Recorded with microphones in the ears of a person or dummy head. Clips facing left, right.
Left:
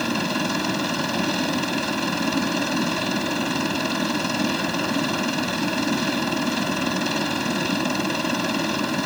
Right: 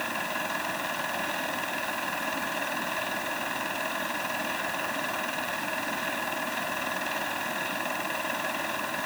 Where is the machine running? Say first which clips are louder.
Left 10 dB; 65° left (ahead or behind).